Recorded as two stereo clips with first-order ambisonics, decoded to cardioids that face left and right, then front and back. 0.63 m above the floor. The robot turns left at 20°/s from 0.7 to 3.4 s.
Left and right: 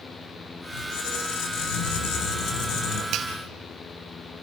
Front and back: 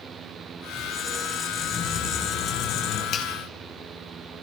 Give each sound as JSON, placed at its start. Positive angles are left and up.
{"t": 0.7, "sound": "a squeak", "azimuth_deg": 85, "distance_m": 5.5}
{"t": 3.1, "sound": "a finger snap", "azimuth_deg": -45, "distance_m": 4.0}